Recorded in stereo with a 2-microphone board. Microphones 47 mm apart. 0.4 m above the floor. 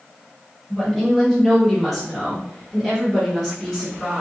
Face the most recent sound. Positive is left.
turn(degrees=-5)  # may be behind; listen again after turning